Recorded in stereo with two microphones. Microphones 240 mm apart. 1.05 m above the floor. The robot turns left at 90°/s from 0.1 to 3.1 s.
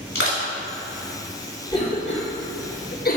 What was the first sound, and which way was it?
Crushing, 60° left (ahead or behind).